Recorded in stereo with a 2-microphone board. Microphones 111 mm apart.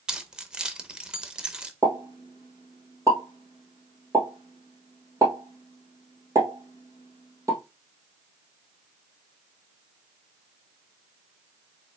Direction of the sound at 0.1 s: 5° right (ahead or behind).